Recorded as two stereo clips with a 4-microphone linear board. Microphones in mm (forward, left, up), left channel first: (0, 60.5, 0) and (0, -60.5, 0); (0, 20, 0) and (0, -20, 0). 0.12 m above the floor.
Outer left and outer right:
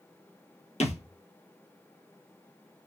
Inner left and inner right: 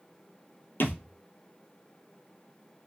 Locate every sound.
0.8 s a thud: 70° left (ahead or behind), 0.7 m